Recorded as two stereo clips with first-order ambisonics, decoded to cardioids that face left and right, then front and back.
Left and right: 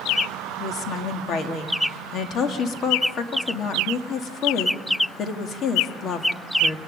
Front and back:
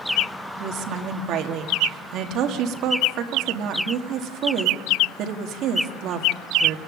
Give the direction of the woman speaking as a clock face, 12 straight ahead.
7 o'clock.